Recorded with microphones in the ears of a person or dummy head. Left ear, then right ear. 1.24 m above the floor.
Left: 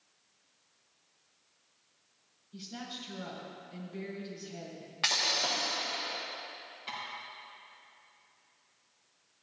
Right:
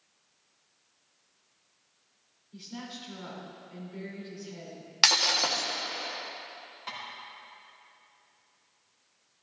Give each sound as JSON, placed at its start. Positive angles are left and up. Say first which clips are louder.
{"t": 2.5, "sound": "a woman speaking", "louder": "even", "side_deg": -20, "distance_m": 3.5}
{"t": 5.0, "sound": "breaking glass", "louder": "right 6 dB", "side_deg": -75, "distance_m": 1.4}
{"t": 6.9, "sound": "tapping", "louder": "right 1 dB", "side_deg": -55, "distance_m": 4.0}